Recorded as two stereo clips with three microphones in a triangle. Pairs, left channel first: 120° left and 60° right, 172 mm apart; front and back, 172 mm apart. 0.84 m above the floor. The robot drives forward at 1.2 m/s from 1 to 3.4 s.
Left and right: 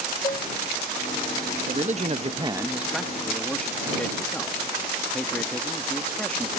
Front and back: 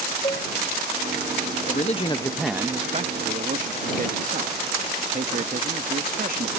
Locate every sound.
0.2 s dishes clattering: 65° left
1.7 s a man speaking: 25° right; by 6.5 s 160° right